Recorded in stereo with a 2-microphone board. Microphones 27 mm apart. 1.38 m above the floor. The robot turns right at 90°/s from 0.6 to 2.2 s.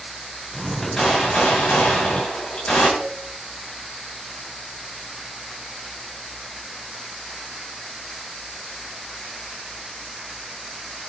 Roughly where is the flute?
Centre.